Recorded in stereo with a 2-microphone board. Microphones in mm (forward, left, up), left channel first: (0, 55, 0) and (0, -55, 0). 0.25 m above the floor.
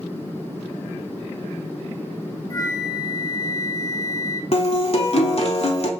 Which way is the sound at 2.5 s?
35° left (ahead or behind).